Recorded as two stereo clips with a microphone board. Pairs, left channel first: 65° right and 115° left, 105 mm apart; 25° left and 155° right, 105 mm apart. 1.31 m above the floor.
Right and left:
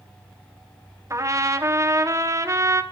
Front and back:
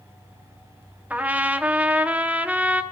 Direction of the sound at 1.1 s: 140° left.